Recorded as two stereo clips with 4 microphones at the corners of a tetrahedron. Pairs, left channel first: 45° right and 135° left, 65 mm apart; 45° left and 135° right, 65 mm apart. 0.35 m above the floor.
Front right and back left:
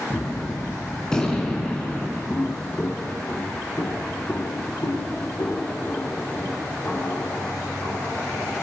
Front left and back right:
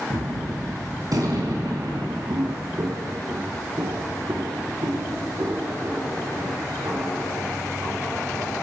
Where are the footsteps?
120° right, 0.8 m; by 8.6 s 100° right, 6 m.